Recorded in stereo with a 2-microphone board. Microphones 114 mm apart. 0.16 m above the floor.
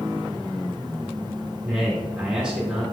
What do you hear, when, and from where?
1.6 s a man speaking: 5° right (ahead or behind), 1.8 m